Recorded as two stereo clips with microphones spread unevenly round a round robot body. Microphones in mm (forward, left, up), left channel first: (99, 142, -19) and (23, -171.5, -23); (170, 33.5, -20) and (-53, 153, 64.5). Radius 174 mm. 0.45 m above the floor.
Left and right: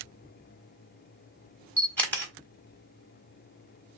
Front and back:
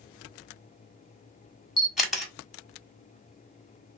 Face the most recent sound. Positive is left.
turn(degrees=0)